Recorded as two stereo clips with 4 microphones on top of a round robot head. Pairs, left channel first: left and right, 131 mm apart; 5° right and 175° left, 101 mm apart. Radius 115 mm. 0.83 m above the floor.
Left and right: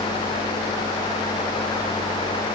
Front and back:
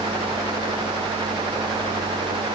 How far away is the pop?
I don't hear a pop.